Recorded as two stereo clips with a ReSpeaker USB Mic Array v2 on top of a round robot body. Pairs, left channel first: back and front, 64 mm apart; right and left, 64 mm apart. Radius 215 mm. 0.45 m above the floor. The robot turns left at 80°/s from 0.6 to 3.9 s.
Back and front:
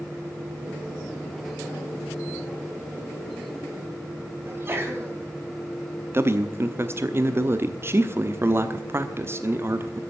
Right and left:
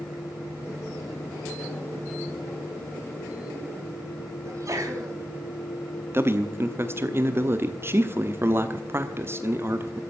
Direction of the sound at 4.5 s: 50° left.